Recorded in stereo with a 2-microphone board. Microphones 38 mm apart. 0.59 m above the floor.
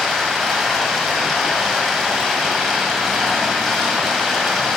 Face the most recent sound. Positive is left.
turn(degrees=0)  # may be behind; listen again after turning